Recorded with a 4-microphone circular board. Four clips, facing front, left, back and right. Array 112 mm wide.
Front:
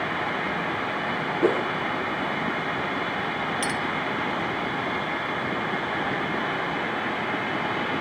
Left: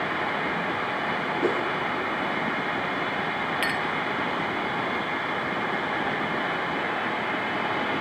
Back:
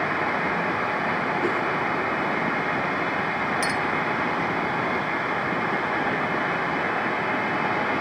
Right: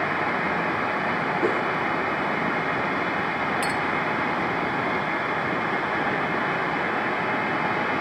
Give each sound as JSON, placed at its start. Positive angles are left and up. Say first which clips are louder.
{"t": 1.4, "sound": "a whoosh", "louder": "even, front 2 dB", "azimuth_deg": 0, "distance_m": 1.9}
{"t": 3.6, "sound": "a clink", "louder": "right 2 dB, back 2 dB", "azimuth_deg": 115, "distance_m": 1.5}